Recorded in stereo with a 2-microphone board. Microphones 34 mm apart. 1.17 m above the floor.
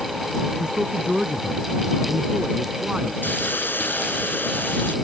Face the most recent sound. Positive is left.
turn(degrees=90)